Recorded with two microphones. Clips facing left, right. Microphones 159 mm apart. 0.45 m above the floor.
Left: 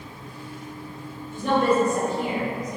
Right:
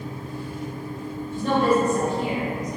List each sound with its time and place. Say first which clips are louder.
1.3 s a woman speaking: even; 15° left (ahead or behind), 1.6 m; by 2.8 s 15° right (ahead or behind), 1.6 m